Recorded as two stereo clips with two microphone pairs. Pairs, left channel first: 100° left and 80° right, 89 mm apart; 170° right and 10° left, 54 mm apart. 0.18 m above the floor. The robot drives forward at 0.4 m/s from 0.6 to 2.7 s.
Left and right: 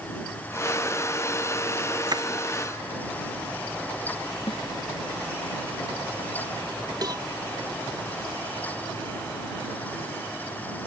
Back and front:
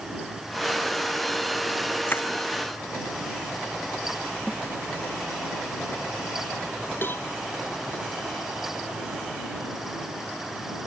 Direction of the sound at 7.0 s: 120° right.